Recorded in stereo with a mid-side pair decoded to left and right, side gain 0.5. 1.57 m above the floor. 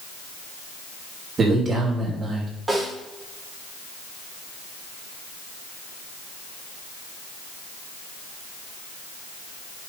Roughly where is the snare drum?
Ahead.